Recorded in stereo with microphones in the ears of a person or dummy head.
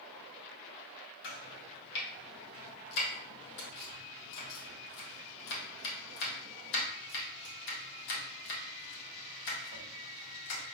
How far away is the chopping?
About 1.5 m.